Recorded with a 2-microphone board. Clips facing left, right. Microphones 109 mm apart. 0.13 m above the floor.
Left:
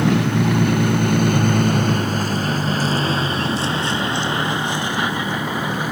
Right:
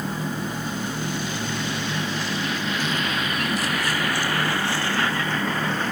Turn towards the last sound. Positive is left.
turn(degrees=10)  # may be behind; listen again after turning